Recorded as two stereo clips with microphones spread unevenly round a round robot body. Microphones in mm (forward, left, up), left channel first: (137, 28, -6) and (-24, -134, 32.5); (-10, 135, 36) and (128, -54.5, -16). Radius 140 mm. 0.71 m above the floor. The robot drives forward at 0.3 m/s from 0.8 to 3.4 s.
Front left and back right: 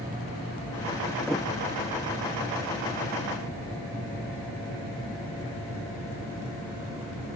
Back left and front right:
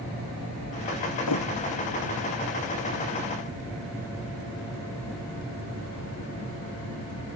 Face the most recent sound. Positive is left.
turn(degrees=135)